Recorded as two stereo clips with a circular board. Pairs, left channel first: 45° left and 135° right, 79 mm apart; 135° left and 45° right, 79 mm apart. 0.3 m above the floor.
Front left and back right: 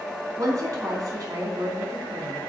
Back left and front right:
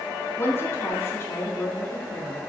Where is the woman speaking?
170° right, 3 m.